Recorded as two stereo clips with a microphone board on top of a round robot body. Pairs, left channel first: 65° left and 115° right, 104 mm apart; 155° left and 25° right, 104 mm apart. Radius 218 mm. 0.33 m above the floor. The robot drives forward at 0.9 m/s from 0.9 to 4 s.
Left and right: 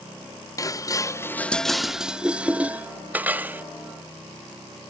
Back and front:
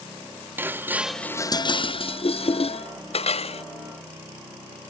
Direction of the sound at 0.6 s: 35° left.